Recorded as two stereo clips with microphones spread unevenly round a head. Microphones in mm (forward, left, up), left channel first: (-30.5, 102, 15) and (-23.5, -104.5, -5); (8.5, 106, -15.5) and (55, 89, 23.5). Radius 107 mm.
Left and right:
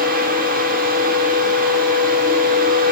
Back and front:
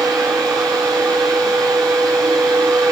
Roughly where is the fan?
Ahead right.